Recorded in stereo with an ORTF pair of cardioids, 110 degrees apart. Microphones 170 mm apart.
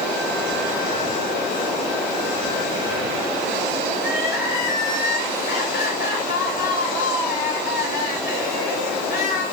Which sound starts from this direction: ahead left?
Crying, at 4.0 s.